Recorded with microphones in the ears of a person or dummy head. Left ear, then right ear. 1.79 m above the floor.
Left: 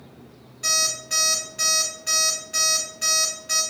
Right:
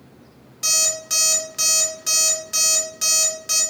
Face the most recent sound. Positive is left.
turn(degrees=-30)  # may be behind; listen again after turning